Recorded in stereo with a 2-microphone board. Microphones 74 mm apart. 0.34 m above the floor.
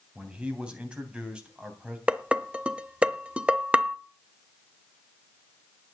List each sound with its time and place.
0.1 s a man speaking: 15° right (ahead or behind), 3 m
2.1 s dishes clattering: 15° right (ahead or behind), 0.8 m